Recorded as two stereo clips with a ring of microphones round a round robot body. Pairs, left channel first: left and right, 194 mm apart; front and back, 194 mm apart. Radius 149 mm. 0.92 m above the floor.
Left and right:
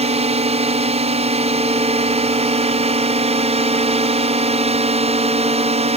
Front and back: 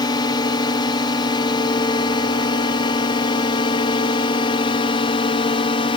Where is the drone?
60° right; by 6.0 s 55° right.